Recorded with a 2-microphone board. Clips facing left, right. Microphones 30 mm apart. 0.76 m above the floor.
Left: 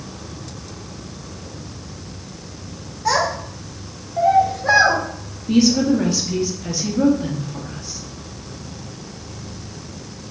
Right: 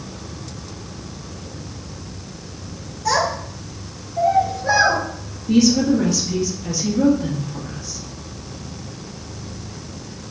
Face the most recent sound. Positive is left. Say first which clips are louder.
# even
turn(degrees=20)  # may be behind; listen again after turning